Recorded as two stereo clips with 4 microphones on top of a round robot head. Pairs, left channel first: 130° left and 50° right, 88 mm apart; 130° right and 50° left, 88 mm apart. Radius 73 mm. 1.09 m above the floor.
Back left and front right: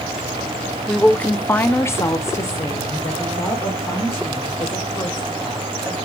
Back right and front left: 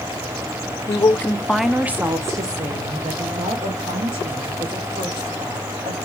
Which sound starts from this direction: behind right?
A woman speaking, at 0.9 s.